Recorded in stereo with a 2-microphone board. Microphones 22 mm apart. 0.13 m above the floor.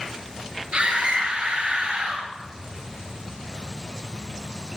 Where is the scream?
50° right (ahead or behind), 2.5 m.